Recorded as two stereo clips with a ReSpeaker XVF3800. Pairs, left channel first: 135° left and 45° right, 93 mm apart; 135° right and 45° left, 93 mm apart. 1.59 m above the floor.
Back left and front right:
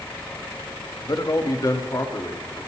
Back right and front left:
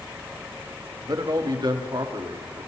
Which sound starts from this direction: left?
A man speaking, at 1.0 s.